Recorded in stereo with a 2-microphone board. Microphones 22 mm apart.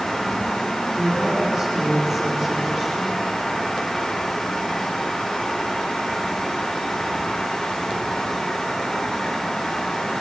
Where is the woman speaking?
5° left (ahead or behind), 7 m.